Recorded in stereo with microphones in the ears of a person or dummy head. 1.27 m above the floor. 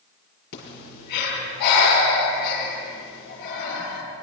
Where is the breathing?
60° left (ahead or behind), 6 m.